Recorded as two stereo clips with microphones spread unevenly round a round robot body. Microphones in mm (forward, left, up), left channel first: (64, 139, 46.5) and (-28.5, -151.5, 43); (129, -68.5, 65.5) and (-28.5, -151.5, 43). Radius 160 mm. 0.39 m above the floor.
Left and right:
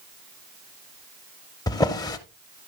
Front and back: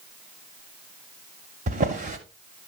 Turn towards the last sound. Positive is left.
turn(degrees=150)